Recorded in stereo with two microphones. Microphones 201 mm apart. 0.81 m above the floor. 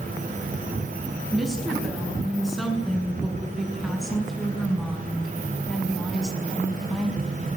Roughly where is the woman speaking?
Centre.